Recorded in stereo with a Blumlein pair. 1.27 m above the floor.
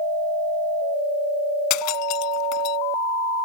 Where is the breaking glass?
40° left.